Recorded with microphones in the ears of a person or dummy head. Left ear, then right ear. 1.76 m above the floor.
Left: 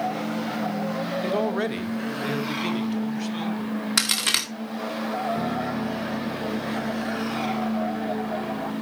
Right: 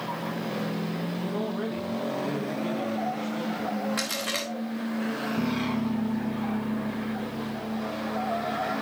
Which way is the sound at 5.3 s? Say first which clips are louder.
Left 2 dB; 80° left.